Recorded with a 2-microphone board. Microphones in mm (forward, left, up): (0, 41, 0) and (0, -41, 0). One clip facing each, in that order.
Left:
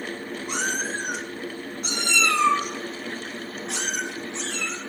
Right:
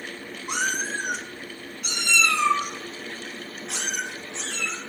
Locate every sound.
0.5 s a cat meowing: 15° right (ahead or behind), 0.9 m; by 4.8 s 75° left (ahead or behind), 2 m